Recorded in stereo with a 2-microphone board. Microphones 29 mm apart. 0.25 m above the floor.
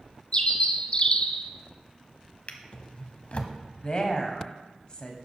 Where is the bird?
35° left (ahead or behind), 0.7 m.